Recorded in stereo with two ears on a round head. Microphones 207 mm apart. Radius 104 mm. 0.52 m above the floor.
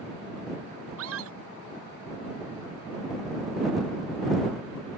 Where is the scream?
65° right (ahead or behind).